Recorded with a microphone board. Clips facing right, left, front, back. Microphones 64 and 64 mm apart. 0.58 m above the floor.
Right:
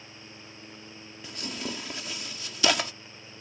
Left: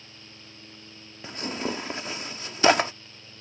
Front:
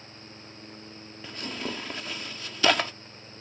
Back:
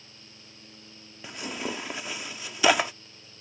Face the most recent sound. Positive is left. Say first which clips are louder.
# left 6 dB, back 1 dB
turn(degrees=110)